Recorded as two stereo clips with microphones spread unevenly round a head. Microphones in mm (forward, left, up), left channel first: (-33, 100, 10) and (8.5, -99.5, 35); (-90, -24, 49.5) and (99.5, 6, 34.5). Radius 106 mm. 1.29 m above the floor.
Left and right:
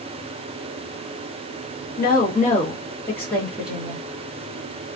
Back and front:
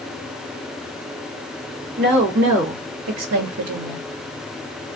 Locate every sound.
2.0 s a woman speaking: 55° left, 1.2 m; by 4.0 s straight ahead, 1.2 m